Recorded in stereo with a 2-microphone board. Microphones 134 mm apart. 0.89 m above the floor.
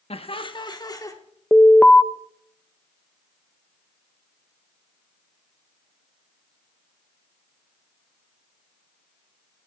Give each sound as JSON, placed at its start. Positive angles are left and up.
{"t": 0.1, "sound": "laughter", "side_deg": 50, "distance_m": 1.1}
{"t": 1.5, "sound": "an alarm", "side_deg": 10, "distance_m": 0.7}